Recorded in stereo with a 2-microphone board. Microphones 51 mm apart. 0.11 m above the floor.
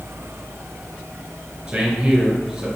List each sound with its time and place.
1.7 s a man speaking: 15° right (ahead or behind), 1.5 m